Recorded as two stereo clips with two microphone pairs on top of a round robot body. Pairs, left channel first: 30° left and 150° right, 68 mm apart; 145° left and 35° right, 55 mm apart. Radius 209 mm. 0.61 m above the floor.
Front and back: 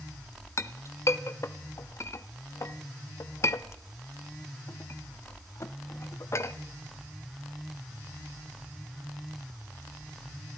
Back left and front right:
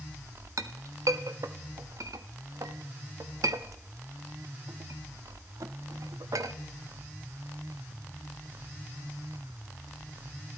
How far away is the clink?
About 0.7 m.